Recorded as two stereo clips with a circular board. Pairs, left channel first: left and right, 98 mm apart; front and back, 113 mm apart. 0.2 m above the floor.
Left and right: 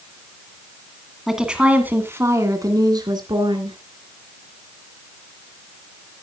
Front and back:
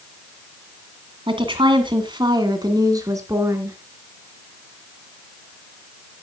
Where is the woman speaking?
175° right, 2 m; by 3.8 s 115° right, 3 m.